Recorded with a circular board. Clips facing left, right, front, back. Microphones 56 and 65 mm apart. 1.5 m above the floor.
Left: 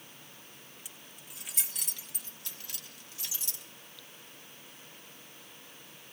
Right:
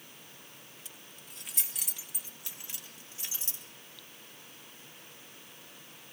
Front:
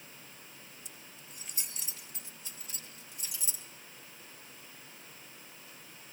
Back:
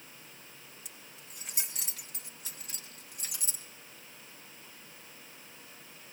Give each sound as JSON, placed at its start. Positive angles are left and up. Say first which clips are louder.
{"t": 0.8, "sound": "keys jangling", "louder": "even, even", "azimuth_deg": 165, "distance_m": 1.7}